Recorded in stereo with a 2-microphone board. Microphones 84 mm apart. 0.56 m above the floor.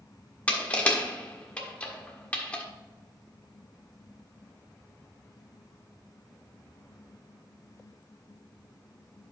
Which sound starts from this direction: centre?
Crushing, at 0.5 s.